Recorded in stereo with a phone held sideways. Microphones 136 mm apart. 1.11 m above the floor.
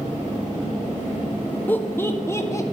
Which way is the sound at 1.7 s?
15° left (ahead or behind).